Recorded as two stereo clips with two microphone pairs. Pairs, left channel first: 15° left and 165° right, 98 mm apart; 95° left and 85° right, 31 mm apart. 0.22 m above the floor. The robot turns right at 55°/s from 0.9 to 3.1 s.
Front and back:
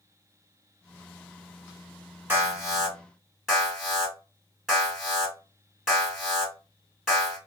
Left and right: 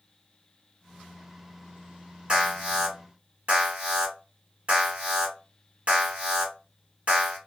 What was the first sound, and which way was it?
An alarm, 120° right.